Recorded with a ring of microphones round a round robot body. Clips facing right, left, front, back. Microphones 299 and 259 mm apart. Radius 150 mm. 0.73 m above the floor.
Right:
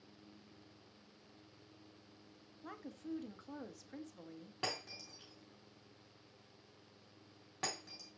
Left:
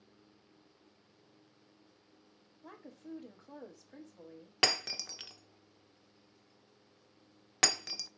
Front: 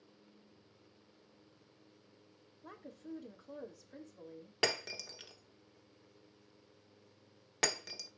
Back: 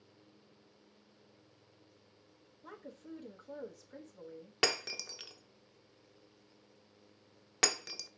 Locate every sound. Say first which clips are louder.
2.6 s a woman speaking: right 2 dB, even; 100° right, 0.9 m
4.6 s breaking glass: left 8 dB, back 1 dB; 100° left, 0.6 m